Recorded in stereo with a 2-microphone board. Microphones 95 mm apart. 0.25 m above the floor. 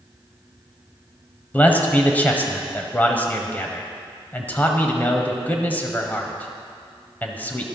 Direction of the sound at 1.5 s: 20° left (ahead or behind).